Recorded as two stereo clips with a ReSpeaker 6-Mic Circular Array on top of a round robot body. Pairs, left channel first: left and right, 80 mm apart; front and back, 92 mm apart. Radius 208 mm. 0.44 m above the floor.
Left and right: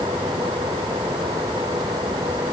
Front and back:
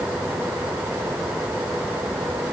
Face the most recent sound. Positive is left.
No sound to turn to.